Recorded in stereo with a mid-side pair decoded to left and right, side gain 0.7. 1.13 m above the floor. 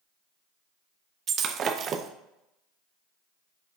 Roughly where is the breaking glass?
Ahead right.